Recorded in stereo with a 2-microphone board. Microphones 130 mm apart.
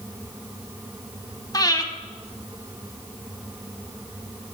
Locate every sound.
1.5 s breathing: 30° left (ahead or behind), 0.9 m